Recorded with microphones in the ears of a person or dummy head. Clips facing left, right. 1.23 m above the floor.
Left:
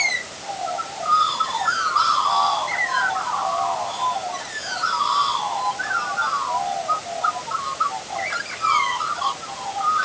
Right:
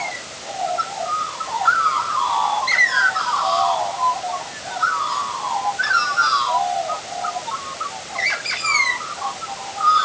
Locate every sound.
Only background noise.